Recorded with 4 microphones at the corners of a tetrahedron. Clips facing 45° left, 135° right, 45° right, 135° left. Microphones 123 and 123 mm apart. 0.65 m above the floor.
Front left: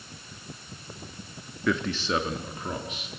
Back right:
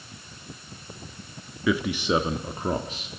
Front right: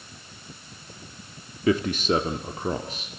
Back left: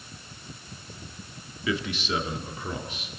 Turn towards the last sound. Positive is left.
turn(degrees=-90)